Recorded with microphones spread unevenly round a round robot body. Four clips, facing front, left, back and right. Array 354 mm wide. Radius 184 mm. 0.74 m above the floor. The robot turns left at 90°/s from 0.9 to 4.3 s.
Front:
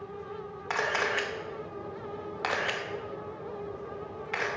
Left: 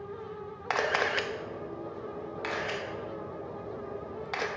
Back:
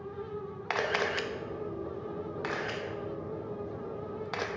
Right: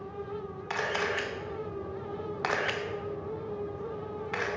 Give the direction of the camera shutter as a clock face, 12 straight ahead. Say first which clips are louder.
Left 3 dB, front 1 dB; 9 o'clock.